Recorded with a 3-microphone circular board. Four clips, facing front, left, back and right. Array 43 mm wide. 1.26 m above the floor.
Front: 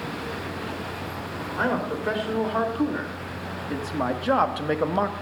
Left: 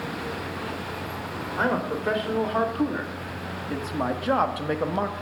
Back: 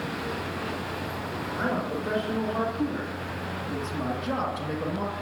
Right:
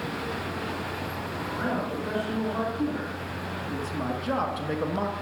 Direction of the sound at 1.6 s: 55° left.